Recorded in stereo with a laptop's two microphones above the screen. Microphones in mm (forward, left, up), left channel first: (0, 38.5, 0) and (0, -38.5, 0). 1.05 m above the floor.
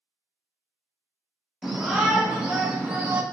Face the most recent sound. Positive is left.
turn(degrees=-20)  # may be behind; listen again after turning